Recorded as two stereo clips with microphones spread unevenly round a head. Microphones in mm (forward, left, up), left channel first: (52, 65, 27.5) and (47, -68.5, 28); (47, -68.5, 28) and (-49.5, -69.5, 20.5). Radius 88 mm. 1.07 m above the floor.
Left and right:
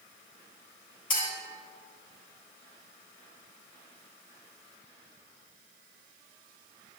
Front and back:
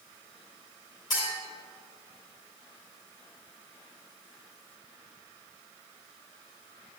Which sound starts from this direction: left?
A clink, at 1.1 s.